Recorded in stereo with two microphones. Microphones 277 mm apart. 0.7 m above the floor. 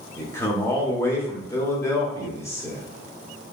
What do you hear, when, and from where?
0.2 s a man speaking: 10° left (ahead or behind), 1.2 m